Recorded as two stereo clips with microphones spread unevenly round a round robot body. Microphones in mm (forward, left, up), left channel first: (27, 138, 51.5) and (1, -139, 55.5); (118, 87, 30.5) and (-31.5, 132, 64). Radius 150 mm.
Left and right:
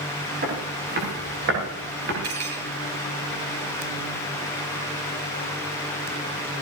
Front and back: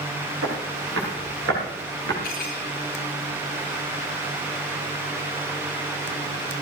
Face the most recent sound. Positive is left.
turn(degrees=-60)